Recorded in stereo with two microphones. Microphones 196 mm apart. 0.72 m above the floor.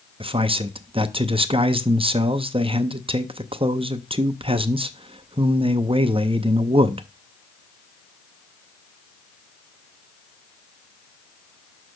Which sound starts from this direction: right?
A man speaking, at 0.2 s.